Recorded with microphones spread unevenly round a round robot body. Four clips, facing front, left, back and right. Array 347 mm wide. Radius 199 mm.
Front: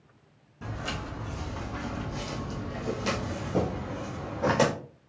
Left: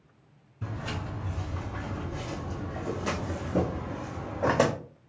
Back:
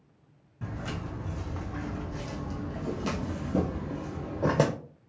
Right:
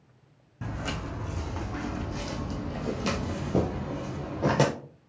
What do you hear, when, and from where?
0.6 s footsteps: 80° right, 2.5 m; by 4.7 s 170° right, 1.1 m